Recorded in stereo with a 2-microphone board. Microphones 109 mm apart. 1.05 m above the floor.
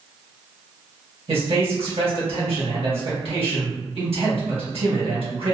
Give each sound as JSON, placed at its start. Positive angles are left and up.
{"t": 1.3, "sound": "a man speaking", "side_deg": -70, "distance_m": 1.9}